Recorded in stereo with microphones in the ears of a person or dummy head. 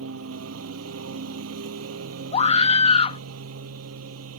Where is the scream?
30° left (ahead or behind).